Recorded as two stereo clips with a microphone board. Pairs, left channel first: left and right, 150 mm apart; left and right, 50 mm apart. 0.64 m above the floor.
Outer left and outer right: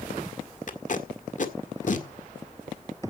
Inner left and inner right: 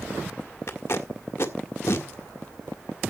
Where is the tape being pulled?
60° left (ahead or behind), 1.8 m.